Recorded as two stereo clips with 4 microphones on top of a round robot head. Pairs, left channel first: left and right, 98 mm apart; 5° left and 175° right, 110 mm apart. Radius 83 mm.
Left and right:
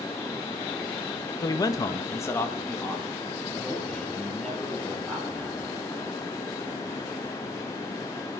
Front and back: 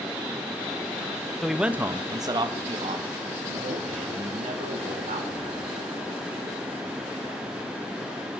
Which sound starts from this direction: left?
A man speaking, at 1.4 s.